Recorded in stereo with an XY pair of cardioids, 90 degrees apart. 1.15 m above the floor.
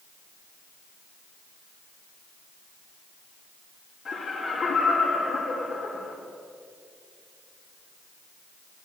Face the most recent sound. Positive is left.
turn(degrees=55)